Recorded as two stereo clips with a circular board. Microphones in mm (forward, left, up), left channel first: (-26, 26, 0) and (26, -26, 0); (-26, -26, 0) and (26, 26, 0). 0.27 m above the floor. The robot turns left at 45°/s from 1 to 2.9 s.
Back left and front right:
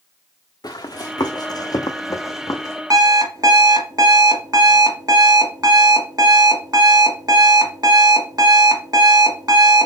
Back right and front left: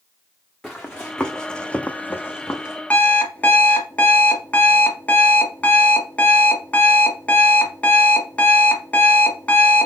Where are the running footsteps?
140° left, 1.2 m; by 2.8 s 165° left, 1.0 m.